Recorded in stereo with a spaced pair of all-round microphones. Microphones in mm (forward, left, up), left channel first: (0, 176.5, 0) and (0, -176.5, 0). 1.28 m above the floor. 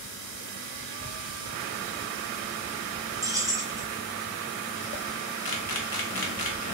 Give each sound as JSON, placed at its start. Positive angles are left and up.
{"t": 3.2, "sound": "keys jangling", "side_deg": -10, "distance_m": 0.9}
{"t": 5.5, "sound": "a camera shutter", "side_deg": 75, "distance_m": 0.8}